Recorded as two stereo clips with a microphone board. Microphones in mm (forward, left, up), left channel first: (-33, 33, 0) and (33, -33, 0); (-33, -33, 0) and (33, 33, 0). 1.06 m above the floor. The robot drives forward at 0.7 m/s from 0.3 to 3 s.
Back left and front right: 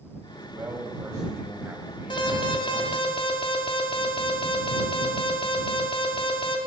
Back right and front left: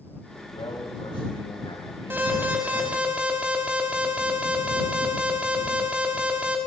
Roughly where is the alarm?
Left.